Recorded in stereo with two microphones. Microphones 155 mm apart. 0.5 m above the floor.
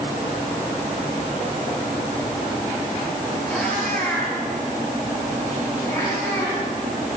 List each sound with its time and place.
3.5 s a cat meowing: 10° left (ahead or behind), 9.5 m; by 6.7 s 25° left (ahead or behind), 10 m